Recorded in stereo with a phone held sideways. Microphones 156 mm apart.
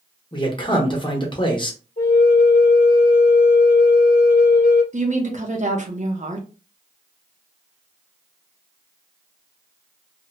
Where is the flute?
60° left (ahead or behind), 0.8 m.